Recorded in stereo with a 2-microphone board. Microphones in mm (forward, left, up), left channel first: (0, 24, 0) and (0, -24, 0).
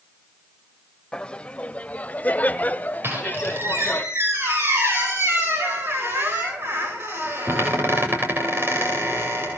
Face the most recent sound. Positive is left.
turn(degrees=-55)  # may be behind; listen again after turning